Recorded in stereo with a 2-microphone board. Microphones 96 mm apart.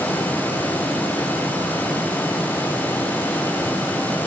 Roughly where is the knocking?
No knocking in this recording.